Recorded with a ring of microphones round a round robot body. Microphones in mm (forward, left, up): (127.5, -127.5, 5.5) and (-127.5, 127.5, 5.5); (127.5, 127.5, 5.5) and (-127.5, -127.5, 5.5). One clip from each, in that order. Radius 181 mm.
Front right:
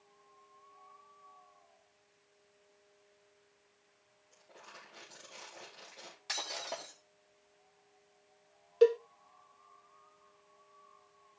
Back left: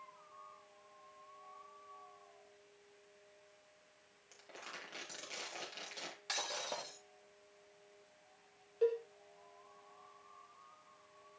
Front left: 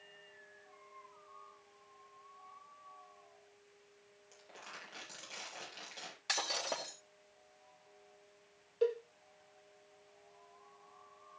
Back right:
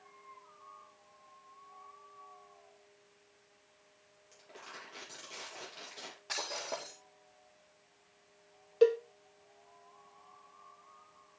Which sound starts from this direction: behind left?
Crumpling, at 4.3 s.